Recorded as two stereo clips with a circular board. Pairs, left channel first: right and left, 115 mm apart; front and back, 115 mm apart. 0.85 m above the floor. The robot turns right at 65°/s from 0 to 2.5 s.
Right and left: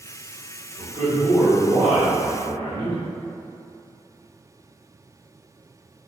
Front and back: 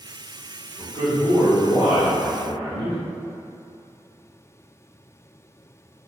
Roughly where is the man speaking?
Right.